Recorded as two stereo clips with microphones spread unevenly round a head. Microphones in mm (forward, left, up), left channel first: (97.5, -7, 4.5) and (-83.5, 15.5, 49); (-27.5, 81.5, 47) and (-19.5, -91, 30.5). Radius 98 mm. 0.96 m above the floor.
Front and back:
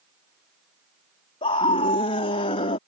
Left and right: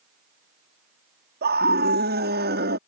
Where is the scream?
65° right.